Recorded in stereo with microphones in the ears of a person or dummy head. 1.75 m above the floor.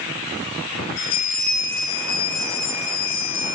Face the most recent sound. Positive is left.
turn(degrees=40)  # may be behind; listen again after turning